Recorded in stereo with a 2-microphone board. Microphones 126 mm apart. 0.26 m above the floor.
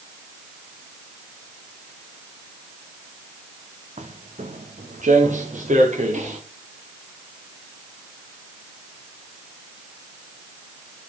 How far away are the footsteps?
About 1.8 m.